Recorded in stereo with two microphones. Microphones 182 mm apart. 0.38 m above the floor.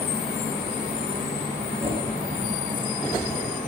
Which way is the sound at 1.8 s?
70° right (ahead or behind).